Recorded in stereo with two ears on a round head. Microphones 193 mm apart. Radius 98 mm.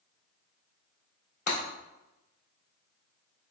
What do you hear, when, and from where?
1.5 s breaking glass: 40° left (ahead or behind), 1.9 m